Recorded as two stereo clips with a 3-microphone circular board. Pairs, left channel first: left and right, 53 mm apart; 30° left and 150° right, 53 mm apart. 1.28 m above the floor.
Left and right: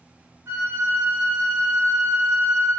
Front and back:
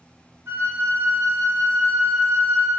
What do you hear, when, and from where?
0.5 s a flute: 120° right, 0.7 m